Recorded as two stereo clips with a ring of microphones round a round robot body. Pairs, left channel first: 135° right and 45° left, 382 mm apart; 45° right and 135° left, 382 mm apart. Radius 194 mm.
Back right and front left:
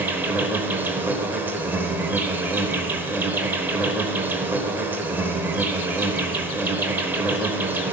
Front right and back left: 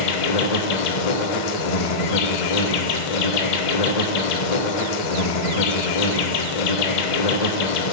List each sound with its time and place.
0.0 s an insect: 40° right, 1.1 m